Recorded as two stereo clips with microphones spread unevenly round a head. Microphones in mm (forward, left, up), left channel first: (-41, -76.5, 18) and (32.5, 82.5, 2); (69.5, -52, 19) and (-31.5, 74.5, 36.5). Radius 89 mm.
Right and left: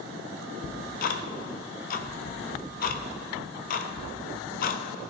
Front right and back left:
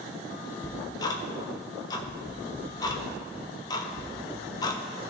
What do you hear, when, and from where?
0.6 s ticking: 120° right, 0.6 m